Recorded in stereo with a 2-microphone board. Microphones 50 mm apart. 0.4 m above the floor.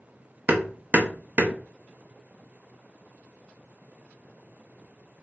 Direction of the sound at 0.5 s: 35° right (ahead or behind).